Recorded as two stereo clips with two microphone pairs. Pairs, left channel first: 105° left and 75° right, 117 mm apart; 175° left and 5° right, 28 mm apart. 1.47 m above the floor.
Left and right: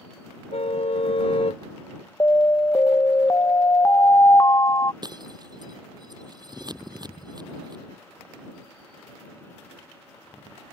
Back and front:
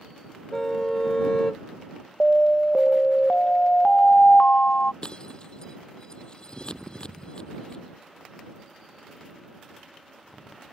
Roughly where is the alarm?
Behind left.